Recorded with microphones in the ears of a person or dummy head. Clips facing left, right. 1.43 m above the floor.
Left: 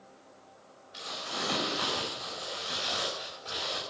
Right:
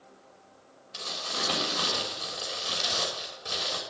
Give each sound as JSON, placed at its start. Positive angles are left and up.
{"t": 0.9, "sound": "crumpling", "side_deg": -70, "distance_m": 5.5}